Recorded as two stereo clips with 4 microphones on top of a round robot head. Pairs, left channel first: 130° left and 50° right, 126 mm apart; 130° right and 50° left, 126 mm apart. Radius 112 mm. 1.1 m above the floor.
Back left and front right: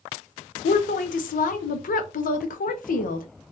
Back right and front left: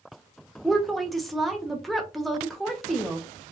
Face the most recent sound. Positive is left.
turn(degrees=140)